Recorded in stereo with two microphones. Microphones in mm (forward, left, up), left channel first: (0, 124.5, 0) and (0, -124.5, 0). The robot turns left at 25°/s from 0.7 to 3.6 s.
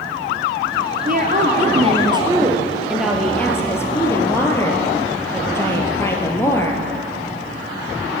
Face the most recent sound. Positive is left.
turn(degrees=165)